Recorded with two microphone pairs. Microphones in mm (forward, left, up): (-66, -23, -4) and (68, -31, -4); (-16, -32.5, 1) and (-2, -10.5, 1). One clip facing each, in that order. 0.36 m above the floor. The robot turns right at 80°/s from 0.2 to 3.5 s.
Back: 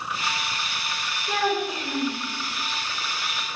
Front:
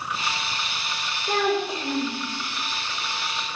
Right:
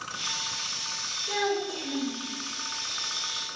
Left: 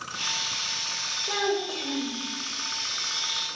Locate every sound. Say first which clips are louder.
1.3 s a child speaking: front 2 dB, even; straight ahead, 0.9 m; by 2.2 s 75° left, 0.9 m